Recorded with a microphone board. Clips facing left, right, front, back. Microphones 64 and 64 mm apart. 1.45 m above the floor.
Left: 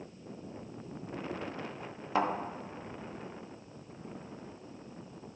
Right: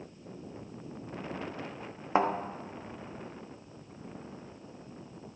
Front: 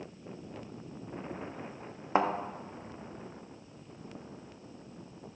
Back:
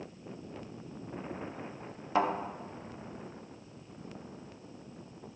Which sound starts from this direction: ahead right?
A thud, at 2.1 s.